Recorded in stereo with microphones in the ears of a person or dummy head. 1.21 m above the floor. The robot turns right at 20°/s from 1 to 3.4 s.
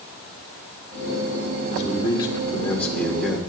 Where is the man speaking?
145° left, 1.5 m; by 3.5 s straight behind, 1.5 m.